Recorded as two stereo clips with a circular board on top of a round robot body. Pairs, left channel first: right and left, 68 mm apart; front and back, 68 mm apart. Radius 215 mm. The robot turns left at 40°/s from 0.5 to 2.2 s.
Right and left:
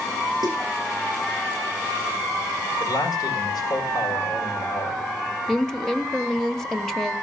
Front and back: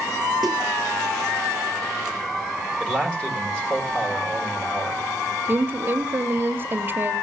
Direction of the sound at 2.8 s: 75° right.